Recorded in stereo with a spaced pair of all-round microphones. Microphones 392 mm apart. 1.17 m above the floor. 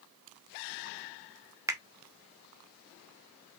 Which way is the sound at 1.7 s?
10° right (ahead or behind).